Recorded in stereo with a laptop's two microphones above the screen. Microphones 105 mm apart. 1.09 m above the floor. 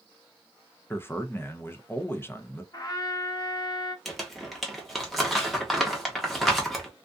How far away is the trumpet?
About 0.6 m.